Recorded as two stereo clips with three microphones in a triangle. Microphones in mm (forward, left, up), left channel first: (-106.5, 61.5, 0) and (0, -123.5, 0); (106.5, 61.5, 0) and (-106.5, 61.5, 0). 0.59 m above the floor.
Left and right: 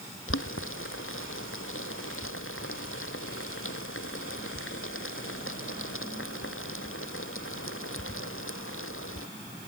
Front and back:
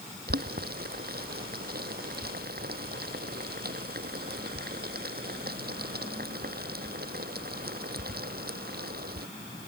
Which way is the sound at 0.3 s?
135° left.